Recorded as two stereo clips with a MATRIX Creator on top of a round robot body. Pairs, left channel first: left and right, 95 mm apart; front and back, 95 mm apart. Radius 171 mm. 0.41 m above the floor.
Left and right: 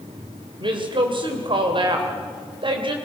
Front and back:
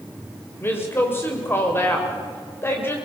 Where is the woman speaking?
65° right, 2.5 m.